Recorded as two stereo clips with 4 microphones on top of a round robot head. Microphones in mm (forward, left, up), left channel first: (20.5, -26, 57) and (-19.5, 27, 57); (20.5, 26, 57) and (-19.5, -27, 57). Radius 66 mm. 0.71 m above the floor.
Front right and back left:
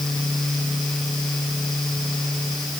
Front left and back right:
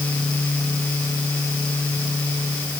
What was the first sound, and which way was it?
Only background noise.